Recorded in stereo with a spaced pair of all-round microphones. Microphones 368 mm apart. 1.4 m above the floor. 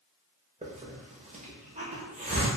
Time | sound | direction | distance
0.6 | a hiss | 20° right (ahead or behind) | 0.8 m